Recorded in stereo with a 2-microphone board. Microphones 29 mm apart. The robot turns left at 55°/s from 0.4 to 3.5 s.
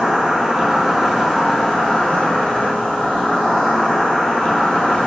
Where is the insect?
140° right, 0.8 m; by 5.1 s 50° left, 0.8 m.